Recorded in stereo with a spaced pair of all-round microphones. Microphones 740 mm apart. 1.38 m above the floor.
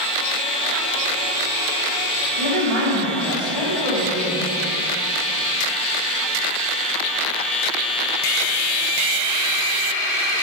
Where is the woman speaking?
55° left (ahead or behind), 2.5 m.